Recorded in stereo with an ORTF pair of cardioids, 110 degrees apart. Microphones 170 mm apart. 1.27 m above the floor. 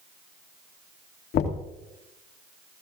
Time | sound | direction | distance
1.3 | knocking | 70° left | 2.5 m